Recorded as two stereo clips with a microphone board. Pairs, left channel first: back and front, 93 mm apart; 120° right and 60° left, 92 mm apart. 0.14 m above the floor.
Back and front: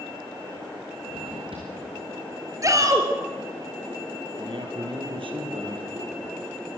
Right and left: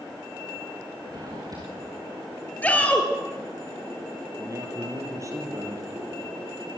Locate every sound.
1.1 s a drawer: 10° left, 5.5 m
2.6 s a shout: 45° right, 3 m
4.4 s a man speaking: 10° left, 4.5 m